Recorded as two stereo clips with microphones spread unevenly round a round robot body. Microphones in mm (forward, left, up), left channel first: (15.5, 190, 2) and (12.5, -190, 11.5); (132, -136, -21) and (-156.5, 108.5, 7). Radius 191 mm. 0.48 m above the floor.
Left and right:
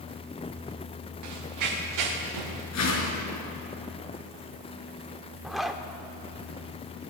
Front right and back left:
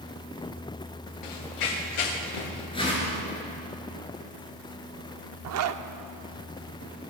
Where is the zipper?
Straight behind, 0.5 m.